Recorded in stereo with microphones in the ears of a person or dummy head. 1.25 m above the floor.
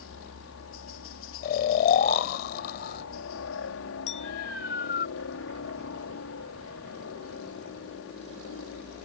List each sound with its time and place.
0.0 s a helicopter: 65° left (ahead or behind)
1.4 s snoring: 55° left (ahead or behind)
4.1 s a clink: 35° left (ahead or behind)